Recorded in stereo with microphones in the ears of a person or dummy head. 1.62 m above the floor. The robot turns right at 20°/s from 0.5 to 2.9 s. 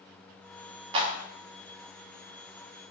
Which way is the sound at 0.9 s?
25° right (ahead or behind).